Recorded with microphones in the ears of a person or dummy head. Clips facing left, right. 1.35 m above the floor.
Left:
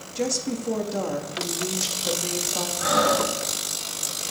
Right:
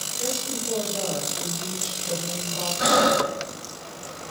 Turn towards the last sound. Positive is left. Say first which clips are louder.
# right 2 dB
turn(degrees=-75)  # may be behind; listen again after turning